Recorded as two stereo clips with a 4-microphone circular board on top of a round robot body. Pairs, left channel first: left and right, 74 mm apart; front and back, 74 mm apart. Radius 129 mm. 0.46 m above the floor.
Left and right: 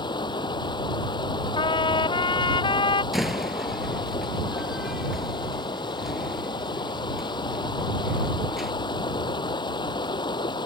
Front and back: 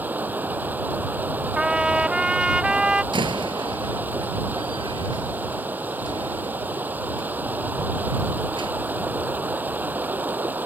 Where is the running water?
115° left.